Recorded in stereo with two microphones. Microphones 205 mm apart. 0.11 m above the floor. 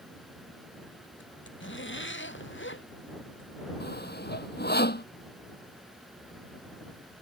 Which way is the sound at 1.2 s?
65° left (ahead or behind).